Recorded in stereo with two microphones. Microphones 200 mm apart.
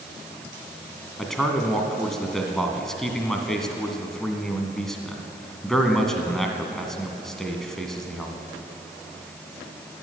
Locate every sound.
1.2 s a man speaking: centre (ahead or behind), 1.6 m